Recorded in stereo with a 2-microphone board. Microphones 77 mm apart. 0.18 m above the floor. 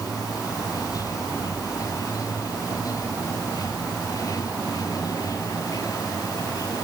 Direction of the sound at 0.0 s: 50° left (ahead or behind).